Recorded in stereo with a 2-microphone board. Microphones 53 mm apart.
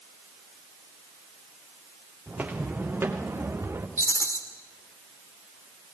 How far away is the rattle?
About 2.5 m.